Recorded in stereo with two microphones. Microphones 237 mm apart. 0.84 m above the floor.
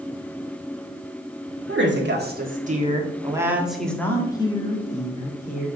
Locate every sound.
1.7 s a woman speaking: 55° right (ahead or behind), 1.8 m; by 5.7 s 35° left (ahead or behind), 2 m